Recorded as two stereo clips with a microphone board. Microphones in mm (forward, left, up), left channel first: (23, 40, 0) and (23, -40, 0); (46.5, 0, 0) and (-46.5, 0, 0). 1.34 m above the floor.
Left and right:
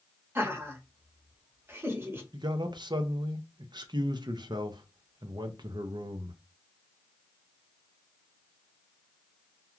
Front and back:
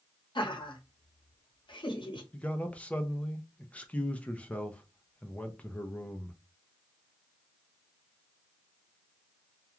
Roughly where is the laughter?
Ahead right.